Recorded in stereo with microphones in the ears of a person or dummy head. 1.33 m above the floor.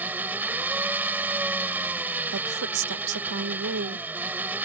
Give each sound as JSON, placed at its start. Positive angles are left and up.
{"t": 0.0, "sound": "an engine running", "side_deg": -10}
{"t": 2.3, "sound": "a woman speaking", "side_deg": -70}